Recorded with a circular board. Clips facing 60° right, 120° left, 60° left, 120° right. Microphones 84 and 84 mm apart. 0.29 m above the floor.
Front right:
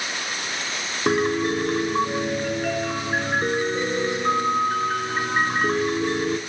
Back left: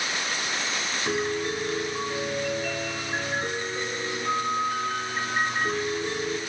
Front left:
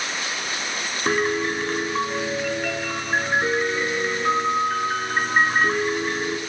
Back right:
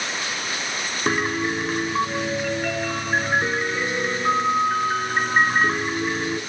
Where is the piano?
35° right, 0.7 m.